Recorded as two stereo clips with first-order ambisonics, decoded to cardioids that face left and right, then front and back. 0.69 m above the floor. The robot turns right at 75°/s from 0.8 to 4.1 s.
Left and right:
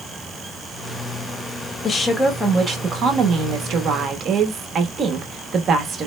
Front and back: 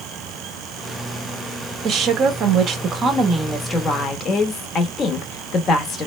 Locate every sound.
1.8 s a woman speaking: 145° left, 0.8 m; by 6.1 s 45° right, 0.8 m